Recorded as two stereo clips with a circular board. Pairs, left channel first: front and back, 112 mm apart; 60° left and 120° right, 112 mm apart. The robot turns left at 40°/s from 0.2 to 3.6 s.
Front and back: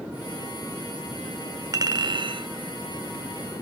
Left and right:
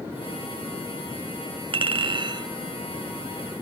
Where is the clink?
130° right, 0.5 m; by 2.5 s 160° right, 0.5 m.